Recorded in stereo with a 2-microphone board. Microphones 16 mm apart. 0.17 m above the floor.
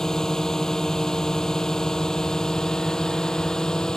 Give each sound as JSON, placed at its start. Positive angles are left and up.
{"t": 0.0, "sound": "a drone", "side_deg": 40}